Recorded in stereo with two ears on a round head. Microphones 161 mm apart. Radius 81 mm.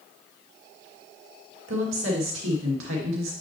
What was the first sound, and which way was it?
A woman speaking, 80° right.